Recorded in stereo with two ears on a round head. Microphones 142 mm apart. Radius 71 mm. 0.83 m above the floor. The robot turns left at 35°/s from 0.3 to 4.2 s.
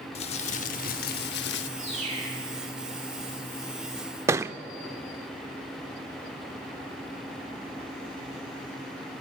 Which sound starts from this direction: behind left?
Crumpling, at 0.1 s.